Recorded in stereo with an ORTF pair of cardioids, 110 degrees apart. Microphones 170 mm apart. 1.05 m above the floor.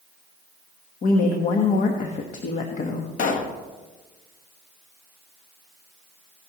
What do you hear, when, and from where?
1.0 s a woman speaking: 50° left, 1.3 m
3.2 s a pop: 55° left, 1.3 m